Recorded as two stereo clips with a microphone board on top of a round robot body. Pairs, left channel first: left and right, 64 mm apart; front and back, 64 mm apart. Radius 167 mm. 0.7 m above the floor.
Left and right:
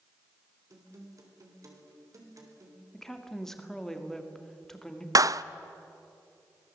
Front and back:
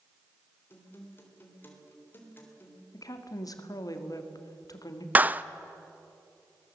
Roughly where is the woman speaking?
Ahead.